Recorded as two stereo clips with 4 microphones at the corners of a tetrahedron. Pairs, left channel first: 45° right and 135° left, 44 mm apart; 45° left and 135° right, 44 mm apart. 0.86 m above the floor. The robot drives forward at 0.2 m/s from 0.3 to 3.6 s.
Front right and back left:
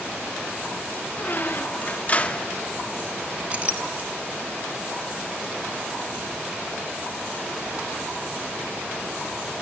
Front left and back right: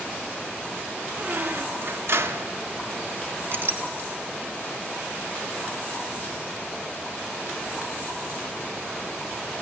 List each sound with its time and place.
1.2 s a squeak: 90° right, 0.6 m; by 2.5 s 115° right, 0.6 m
3.5 s a clink: 170° right, 0.9 m